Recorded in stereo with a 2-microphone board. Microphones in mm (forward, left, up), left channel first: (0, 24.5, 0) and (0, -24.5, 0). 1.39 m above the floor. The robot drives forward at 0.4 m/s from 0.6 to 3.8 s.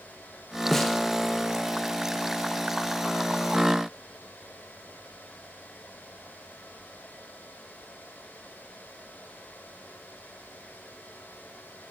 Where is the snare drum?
5° left (ahead or behind), 0.6 m.